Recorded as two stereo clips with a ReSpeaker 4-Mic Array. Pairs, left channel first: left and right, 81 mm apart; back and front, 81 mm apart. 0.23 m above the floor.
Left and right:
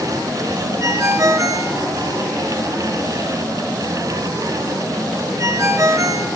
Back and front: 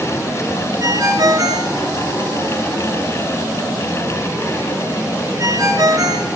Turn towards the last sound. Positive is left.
turn(degrees=-40)